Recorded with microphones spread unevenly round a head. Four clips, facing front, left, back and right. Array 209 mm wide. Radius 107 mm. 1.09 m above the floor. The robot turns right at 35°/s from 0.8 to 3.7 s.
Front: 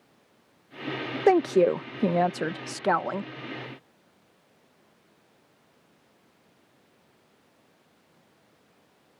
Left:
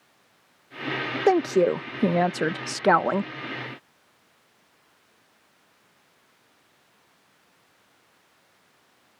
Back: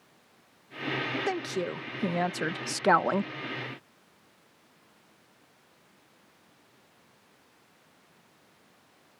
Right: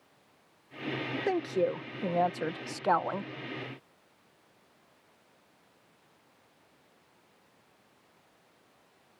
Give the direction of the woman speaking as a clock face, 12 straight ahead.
11 o'clock.